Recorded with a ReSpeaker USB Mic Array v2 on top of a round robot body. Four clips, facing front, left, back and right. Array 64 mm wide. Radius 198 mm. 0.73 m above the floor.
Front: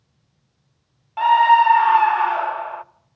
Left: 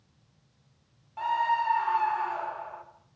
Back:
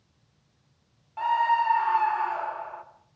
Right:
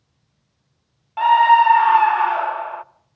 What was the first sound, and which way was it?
A scream, 55° right.